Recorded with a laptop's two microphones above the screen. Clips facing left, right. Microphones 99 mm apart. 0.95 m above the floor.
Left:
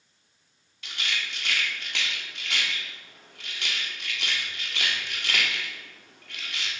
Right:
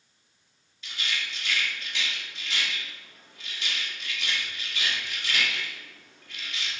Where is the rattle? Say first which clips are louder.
Left 1 dB; 65° left (ahead or behind), 1.7 m.